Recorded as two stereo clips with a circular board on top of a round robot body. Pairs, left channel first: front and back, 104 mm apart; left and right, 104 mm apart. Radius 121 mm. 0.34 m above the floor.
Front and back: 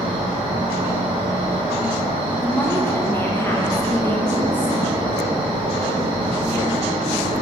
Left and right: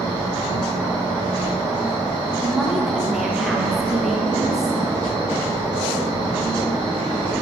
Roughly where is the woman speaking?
Ahead.